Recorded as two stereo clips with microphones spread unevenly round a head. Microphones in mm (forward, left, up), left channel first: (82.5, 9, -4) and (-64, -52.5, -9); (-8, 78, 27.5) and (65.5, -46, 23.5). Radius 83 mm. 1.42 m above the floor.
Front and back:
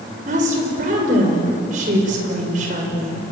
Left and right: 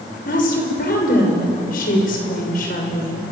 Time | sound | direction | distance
0.2 | a woman speaking | 155° left | 6.5 m